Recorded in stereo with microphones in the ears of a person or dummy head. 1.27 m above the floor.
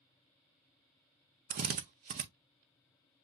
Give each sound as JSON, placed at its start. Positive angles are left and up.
{"t": 1.5, "sound": "a drill", "side_deg": -40, "distance_m": 0.6}